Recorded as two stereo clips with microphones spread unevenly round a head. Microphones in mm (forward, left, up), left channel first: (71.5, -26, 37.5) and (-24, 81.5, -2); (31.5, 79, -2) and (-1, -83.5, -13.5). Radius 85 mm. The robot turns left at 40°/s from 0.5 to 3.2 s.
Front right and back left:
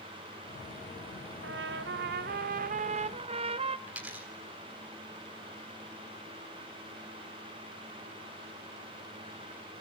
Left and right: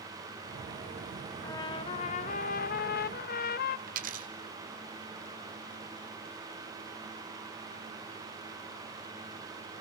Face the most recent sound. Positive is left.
turn(degrees=-140)